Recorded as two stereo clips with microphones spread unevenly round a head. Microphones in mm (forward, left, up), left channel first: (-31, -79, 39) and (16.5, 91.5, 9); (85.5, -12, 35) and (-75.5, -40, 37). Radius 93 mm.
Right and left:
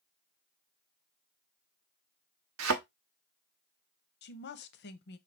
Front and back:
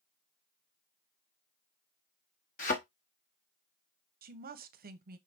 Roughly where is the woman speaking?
Behind right.